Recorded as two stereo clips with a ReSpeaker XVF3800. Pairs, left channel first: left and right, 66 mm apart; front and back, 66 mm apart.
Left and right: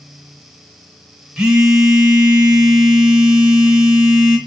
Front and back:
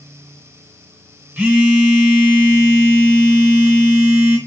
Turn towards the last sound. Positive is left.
turn(degrees=-150)